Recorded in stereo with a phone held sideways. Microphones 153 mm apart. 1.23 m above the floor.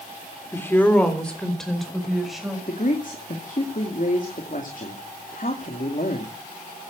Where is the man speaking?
60° left (ahead or behind), 2.5 m.